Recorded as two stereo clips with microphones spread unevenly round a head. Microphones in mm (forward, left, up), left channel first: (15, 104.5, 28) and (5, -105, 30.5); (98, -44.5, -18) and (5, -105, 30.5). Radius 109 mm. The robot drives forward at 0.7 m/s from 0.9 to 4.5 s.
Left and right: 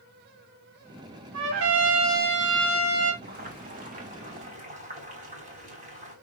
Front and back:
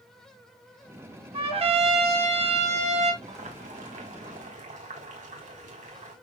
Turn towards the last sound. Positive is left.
turn(degrees=-150)